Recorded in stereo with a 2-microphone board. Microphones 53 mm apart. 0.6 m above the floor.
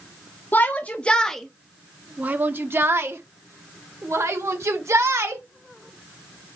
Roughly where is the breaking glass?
No breaking glass in this recording.